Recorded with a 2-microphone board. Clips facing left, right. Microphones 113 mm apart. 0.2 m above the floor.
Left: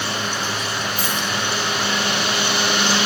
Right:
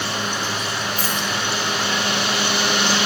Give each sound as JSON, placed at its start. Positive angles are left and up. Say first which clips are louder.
{"t": 1.0, "sound": "a dropped coin", "louder": "even", "side_deg": -40, "distance_m": 4.5}